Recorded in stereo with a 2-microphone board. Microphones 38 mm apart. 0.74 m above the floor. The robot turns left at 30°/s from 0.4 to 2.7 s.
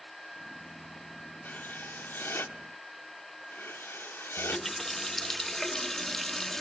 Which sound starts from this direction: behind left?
Writing, at 1.4 s.